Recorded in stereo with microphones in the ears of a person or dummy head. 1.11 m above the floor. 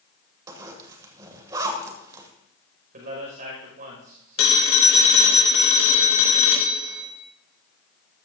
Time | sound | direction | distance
0.5 | a zipper | 20° right (ahead or behind) | 2 m
2.9 | a man speaking | 45° right (ahead or behind) | 5.5 m
4.4 | a phone ringing | 80° left | 2.5 m